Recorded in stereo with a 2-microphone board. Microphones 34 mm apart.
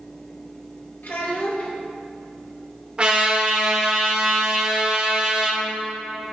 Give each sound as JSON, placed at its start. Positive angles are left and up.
{"t": 1.0, "sound": "a child speaking", "side_deg": 70, "distance_m": 1.9}
{"t": 3.0, "sound": "a trumpet", "side_deg": -35, "distance_m": 1.9}